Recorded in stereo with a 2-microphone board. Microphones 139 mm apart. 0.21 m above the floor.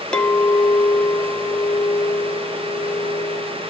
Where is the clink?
5° left (ahead or behind), 0.5 m.